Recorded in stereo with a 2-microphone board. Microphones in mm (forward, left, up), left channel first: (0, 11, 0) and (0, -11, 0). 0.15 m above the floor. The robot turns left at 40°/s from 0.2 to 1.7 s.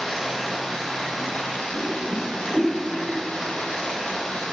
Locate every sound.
0.0 s running water: 170° left, 4 m; by 4.5 s 110° left, 4 m
1.7 s a whoosh: 60° left (ahead or behind), 4 m